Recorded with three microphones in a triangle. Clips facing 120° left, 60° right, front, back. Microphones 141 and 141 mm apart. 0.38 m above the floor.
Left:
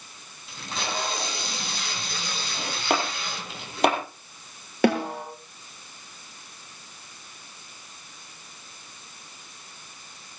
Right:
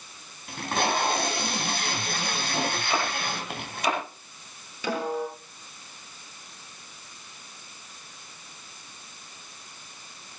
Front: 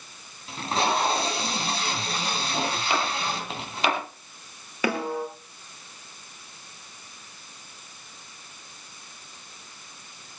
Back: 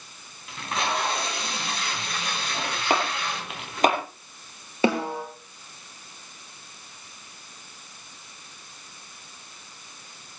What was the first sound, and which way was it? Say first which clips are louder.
Tape being pulled: right 6 dB, front 3 dB; 55° right.